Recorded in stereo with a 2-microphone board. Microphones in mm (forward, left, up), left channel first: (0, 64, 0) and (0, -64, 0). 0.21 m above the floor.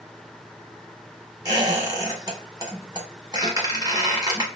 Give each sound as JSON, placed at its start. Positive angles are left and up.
{"t": 1.4, "sound": "a squeak", "side_deg": -30, "distance_m": 1.2}